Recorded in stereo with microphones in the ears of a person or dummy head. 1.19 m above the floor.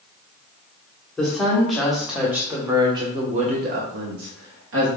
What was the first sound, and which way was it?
A woman speaking, centre (ahead or behind).